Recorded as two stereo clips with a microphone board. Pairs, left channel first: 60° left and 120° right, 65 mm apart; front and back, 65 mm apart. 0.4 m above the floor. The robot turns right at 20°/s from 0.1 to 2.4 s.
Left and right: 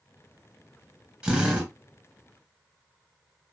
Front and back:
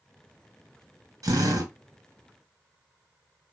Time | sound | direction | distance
1.2 | a drill | 160° left | 1.2 m